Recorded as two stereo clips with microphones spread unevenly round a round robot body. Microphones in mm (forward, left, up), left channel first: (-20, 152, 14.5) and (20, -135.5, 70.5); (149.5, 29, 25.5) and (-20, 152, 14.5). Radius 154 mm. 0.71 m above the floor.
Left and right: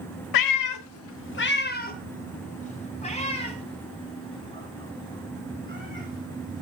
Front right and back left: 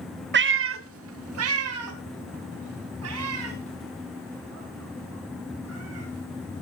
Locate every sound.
0.3 s a cat meowing: 105° left, 0.7 m; by 6.6 s 175° left, 6 m